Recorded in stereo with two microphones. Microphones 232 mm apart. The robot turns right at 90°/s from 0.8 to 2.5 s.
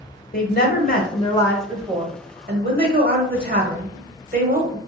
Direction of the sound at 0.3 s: 105° left.